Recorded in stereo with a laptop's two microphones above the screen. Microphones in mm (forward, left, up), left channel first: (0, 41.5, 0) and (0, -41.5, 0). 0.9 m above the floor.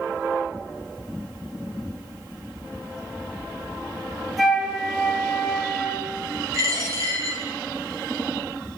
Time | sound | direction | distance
4.4 | a flute | centre (ahead or behind) | 0.6 m
6.5 | a dropped coin | 40° right (ahead or behind) | 0.5 m